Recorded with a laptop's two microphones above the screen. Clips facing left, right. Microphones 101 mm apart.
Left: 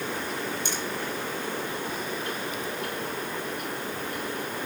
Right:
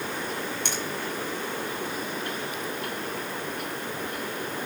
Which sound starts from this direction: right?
A finger snap, at 0.7 s.